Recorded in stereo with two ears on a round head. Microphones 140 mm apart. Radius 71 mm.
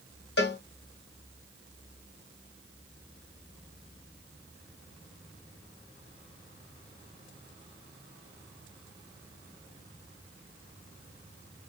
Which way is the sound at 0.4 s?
75° left (ahead or behind).